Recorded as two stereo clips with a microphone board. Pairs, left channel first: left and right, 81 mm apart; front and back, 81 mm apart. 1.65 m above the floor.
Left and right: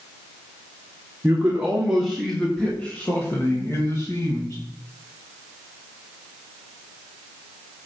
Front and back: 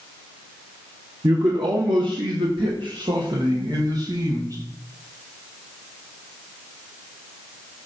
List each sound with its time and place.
1.2 s a man speaking: 155° right, 1.9 m; by 4.6 s 135° left, 3 m